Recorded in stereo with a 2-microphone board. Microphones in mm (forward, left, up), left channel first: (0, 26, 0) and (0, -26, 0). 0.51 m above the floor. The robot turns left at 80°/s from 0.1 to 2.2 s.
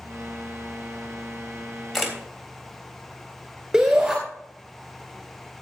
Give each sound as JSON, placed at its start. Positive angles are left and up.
{"t": 1.9, "sound": "a camera shutter", "side_deg": 5, "distance_m": 3.5}
{"t": 3.7, "sound": "a shout", "side_deg": -20, "distance_m": 2.5}